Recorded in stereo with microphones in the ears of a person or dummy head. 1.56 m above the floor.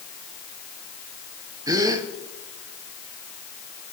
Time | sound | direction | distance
1.7 | a gasp | 20° right (ahead or behind) | 1.0 m